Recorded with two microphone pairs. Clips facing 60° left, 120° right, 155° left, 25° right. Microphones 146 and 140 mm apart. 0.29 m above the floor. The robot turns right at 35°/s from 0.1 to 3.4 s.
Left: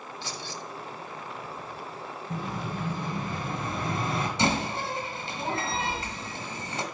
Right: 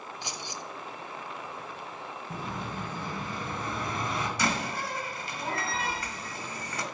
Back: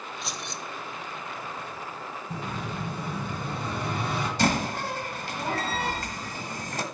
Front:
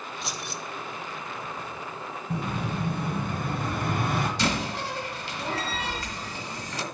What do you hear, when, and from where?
0.2 s keys jangling: 120° right, 0.6 m; by 0.6 s 105° right, 0.6 m
2.3 s an explosion: 35° right, 3 m; by 4.3 s straight ahead, 3 m
4.4 s a door slam: 125° left, 1.5 m